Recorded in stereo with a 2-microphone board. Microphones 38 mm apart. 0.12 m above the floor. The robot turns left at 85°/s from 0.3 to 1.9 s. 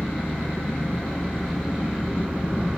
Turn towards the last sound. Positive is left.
turn(degrees=-30)